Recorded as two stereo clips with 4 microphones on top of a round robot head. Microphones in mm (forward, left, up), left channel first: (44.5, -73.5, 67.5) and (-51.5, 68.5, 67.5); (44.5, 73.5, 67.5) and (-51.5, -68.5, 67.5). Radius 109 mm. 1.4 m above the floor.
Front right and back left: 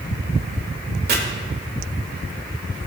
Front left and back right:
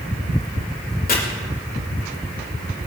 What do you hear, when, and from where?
1.1 s chopping: 90° left, 1.9 m